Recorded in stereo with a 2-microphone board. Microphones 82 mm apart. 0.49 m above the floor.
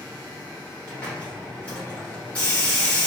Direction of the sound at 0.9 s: 15° left (ahead or behind).